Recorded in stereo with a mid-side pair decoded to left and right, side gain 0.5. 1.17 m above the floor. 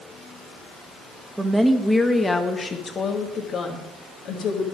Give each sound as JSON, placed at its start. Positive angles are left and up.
{"t": 1.4, "sound": "a woman speaking", "azimuth_deg": -15, "distance_m": 1.3}